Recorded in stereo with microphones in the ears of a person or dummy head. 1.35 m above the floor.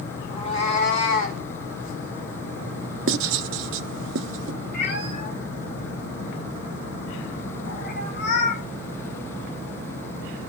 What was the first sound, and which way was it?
A cat meowing, 30° left (ahead or behind).